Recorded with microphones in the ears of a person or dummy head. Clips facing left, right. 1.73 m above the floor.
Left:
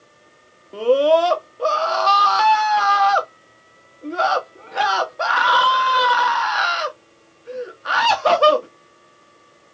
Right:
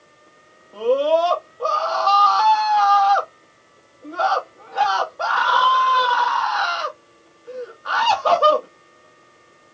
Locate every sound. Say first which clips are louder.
0.7 s a scream: left 3 dB; 30° left (ahead or behind), 0.9 m